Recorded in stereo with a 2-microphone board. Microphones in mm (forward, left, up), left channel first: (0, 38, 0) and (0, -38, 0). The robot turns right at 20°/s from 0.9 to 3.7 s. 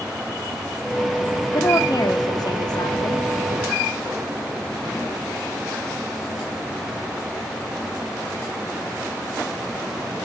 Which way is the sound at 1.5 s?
45° left.